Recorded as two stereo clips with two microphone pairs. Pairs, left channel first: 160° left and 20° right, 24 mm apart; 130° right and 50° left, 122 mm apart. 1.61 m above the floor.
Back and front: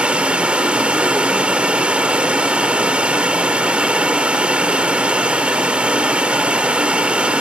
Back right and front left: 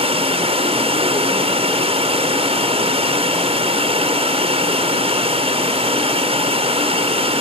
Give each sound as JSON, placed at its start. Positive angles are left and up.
{"t": 0.0, "sound": "running water", "azimuth_deg": 10}